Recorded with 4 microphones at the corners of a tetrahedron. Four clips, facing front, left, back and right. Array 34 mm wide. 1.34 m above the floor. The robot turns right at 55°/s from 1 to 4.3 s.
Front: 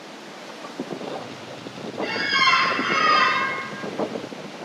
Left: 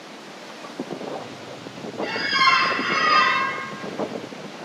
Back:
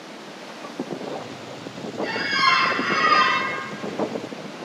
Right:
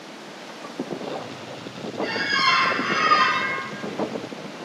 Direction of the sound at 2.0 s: 5° right.